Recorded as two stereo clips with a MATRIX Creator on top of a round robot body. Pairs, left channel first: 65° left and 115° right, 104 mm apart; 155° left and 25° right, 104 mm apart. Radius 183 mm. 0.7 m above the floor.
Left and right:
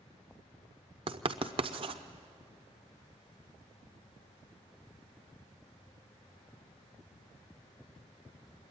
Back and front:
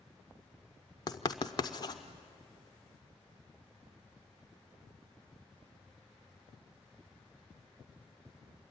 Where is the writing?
150° right, 0.8 m.